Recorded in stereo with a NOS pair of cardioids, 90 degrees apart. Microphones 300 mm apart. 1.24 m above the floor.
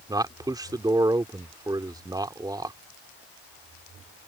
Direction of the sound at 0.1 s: 15° right.